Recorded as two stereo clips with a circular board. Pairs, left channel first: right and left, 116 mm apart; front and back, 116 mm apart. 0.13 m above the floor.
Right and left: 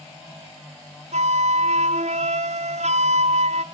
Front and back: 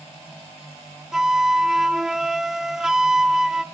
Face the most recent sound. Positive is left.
turn(degrees=95)